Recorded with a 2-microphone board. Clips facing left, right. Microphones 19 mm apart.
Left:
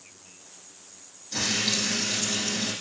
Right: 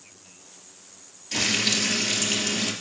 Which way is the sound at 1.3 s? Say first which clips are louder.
Right 3 dB; 60° right (ahead or behind).